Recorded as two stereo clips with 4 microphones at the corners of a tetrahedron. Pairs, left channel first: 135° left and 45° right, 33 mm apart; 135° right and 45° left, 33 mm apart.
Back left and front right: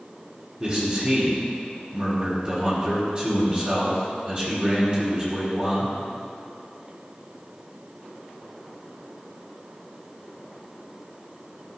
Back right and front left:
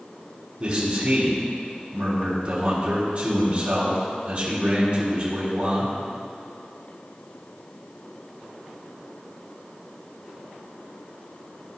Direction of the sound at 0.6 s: 30° left.